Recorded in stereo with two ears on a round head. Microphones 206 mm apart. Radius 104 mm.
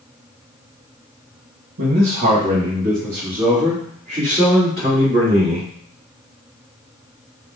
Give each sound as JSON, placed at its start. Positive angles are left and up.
{"t": 1.8, "sound": "a man speaking", "side_deg": -55, "distance_m": 1.6}